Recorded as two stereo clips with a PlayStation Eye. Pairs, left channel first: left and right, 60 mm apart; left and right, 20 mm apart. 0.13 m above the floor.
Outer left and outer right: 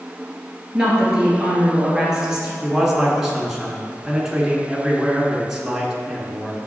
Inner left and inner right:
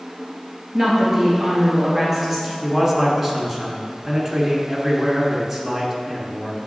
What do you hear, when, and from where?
0.7 s a woman speaking: 10° right (ahead or behind), 2.5 m
2.6 s a man speaking: 5° right (ahead or behind), 1.5 m